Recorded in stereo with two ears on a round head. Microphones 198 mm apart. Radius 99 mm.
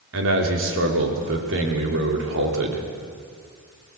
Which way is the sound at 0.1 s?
65° right (ahead or behind).